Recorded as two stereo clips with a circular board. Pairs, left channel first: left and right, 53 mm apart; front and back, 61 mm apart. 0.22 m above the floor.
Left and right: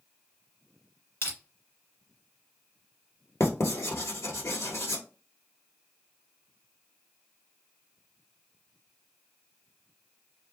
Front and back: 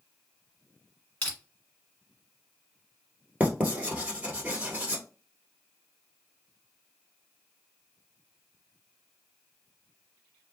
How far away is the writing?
About 1.2 m.